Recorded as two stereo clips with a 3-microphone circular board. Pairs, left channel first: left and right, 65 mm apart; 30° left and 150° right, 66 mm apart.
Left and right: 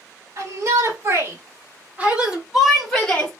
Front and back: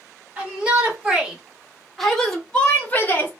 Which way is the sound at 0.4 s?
80° right.